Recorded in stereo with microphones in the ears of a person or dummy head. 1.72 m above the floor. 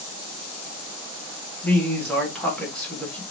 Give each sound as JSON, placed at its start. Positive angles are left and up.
{"t": 1.6, "sound": "a woman speaking", "side_deg": 10, "distance_m": 1.3}